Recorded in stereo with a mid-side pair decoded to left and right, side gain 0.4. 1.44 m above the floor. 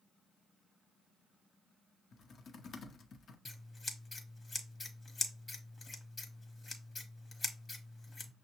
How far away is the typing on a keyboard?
About 0.7 m.